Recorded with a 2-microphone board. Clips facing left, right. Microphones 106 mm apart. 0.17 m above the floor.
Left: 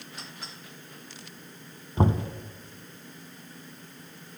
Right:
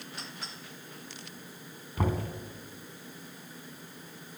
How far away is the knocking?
About 0.8 m.